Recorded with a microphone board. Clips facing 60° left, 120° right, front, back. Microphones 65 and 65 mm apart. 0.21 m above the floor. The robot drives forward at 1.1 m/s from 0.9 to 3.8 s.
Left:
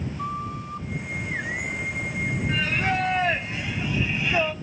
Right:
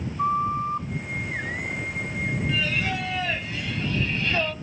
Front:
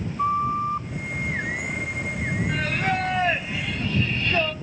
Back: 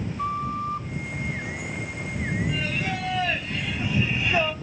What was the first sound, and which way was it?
A flute, 65° right.